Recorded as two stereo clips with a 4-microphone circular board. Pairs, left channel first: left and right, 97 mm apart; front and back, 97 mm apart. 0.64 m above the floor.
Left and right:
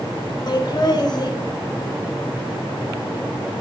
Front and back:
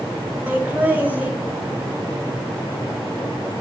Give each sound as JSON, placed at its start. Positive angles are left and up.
{"t": 0.5, "sound": "laughter", "azimuth_deg": 115, "distance_m": 1.2}